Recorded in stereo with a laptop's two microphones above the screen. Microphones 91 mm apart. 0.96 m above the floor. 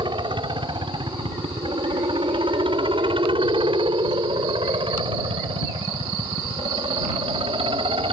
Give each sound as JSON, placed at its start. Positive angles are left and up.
{"t": 0.0, "sound": "a helicopter", "side_deg": -65}